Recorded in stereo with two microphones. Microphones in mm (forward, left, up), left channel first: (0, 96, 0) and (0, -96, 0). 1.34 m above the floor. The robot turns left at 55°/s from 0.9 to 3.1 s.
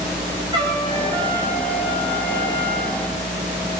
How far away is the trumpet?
About 8 m.